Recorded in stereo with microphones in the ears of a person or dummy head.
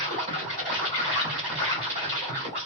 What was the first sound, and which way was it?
An insect, 50° right (ahead or behind).